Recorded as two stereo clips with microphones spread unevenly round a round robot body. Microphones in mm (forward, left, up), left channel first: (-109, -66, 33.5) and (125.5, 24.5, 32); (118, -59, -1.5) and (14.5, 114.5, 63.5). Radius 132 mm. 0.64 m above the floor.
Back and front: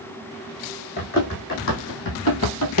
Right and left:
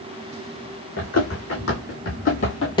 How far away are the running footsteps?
About 2.5 m.